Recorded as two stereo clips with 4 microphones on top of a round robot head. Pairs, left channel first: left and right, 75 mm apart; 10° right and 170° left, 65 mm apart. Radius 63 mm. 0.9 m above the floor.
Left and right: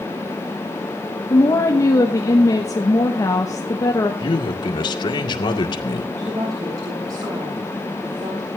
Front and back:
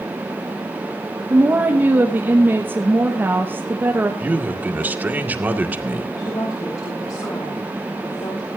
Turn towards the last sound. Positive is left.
turn(degrees=-45)